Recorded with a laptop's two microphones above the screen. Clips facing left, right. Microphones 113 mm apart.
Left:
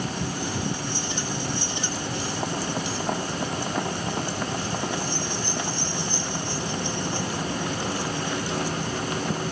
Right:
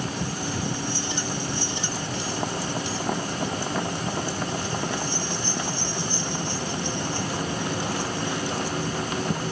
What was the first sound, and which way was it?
Only background noise.